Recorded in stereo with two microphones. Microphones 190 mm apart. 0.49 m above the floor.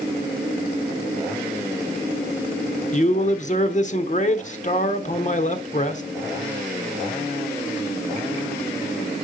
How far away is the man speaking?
About 1.1 m.